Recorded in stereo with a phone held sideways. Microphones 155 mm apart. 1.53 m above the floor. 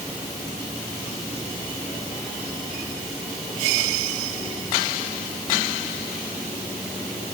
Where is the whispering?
I don't hear whispering.